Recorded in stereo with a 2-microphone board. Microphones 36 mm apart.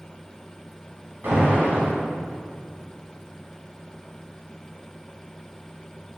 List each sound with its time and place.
1.2 s an alarm: 75° right (ahead or behind), 2 m